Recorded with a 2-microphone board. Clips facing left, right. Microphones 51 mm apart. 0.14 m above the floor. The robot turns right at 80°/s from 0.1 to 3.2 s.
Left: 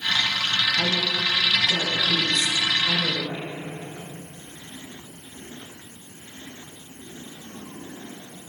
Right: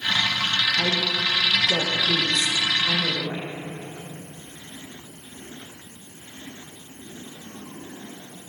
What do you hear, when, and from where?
0.8 s a woman speaking: 10° right (ahead or behind), 5.5 m; by 3.5 s 25° left (ahead or behind), 5.5 m